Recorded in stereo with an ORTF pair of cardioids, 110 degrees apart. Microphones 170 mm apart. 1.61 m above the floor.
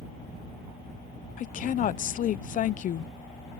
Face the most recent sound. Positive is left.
turn(degrees=50)